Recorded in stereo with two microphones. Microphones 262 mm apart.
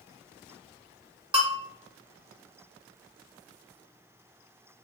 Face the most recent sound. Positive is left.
turn(degrees=-20)  # may be behind; listen again after turning